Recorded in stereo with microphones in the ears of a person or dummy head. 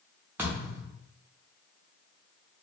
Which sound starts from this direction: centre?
A thud, at 0.4 s.